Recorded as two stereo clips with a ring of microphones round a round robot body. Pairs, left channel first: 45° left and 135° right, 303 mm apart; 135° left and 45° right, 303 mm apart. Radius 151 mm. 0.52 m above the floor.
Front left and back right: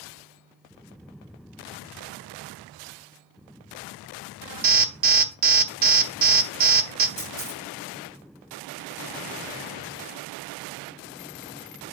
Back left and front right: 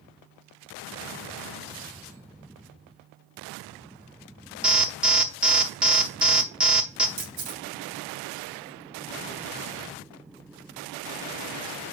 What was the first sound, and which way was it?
An alarm, 130° right.